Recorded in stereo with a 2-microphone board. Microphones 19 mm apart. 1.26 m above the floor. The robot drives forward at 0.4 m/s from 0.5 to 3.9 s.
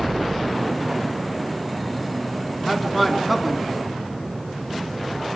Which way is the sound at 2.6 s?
5° right (ahead or behind).